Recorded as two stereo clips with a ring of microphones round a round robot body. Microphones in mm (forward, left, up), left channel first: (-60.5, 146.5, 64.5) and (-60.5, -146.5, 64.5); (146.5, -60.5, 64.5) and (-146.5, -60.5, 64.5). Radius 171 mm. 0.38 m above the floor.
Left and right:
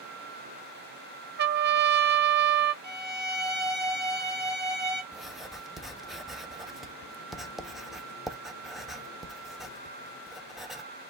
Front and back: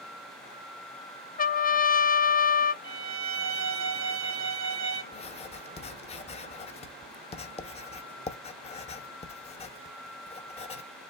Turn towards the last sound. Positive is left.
turn(degrees=0)